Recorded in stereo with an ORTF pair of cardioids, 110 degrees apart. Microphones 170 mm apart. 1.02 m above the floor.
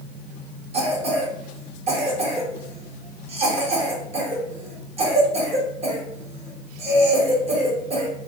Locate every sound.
0.7 s a cough: 40° right, 1.4 m